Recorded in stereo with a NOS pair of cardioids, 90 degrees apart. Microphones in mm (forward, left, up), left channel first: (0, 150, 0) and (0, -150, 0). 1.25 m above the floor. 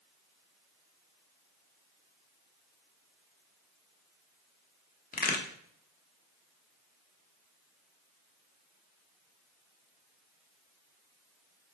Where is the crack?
30° left, 0.9 m.